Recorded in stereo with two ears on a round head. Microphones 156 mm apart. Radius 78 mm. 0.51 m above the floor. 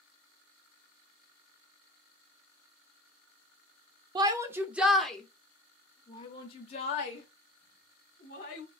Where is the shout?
25° right (ahead or behind), 1.0 m; by 8.7 s 50° left (ahead or behind), 2.5 m.